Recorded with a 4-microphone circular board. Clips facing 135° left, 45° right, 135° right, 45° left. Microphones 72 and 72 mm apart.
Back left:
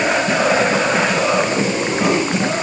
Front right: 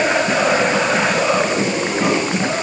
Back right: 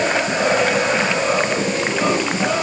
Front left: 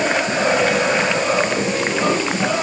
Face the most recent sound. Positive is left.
No sound to turn to.